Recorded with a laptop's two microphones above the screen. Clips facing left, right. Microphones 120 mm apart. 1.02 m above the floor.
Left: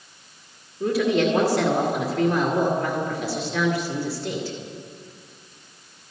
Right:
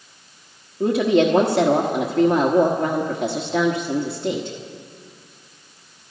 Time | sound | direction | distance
0.8 | a woman speaking | 70° right (ahead or behind) | 1.2 m